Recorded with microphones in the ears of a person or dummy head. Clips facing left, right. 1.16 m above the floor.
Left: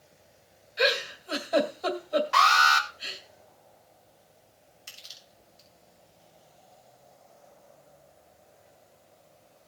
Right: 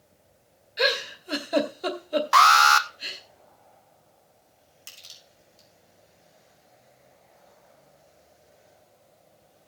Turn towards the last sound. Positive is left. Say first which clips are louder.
# even
turn(degrees=-70)  # may be behind; listen again after turning